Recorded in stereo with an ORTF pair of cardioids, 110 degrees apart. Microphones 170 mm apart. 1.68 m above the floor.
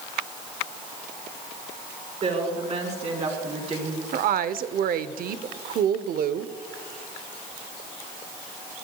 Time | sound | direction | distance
2.2 | a woman speaking | 40° right | 5 m
4.1 | a woman speaking | 55° right | 0.8 m